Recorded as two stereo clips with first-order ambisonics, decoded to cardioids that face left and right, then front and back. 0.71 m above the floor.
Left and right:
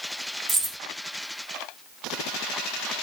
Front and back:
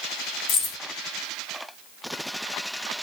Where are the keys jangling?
30° right, 1.2 m.